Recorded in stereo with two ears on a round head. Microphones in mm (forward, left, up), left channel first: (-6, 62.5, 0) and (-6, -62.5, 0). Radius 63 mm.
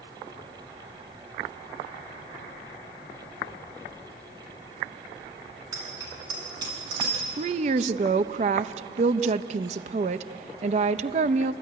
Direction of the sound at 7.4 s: 50° right (ahead or behind).